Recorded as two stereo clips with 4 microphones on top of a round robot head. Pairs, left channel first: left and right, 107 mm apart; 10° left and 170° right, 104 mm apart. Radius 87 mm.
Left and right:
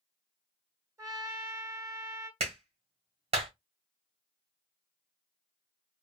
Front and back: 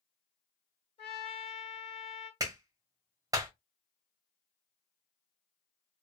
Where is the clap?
115° right, 1.9 m.